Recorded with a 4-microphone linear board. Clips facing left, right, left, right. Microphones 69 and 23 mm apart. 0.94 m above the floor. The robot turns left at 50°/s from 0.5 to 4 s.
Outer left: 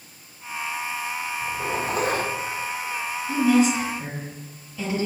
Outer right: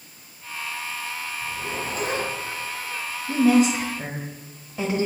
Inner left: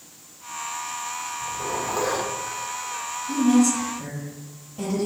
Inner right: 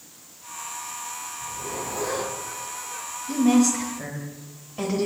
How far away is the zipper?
About 1.2 m.